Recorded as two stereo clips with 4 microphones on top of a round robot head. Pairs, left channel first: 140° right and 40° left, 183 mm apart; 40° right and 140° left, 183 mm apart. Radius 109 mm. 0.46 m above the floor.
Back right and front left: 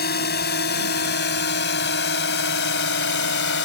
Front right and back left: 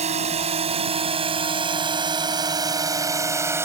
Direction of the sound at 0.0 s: 170° right.